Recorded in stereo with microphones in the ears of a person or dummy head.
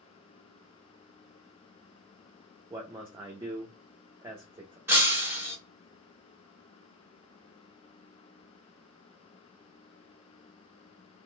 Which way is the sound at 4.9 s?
15° right (ahead or behind).